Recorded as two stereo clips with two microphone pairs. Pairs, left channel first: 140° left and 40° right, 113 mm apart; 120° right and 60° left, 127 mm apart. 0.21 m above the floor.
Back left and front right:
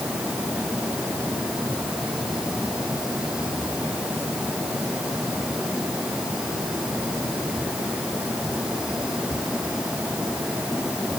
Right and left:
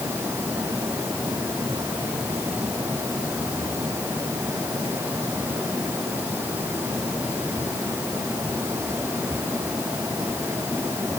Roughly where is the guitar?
I don't hear a guitar.